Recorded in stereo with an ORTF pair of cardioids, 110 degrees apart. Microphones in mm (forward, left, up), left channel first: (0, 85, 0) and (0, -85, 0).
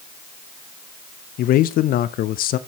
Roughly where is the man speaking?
Ahead left.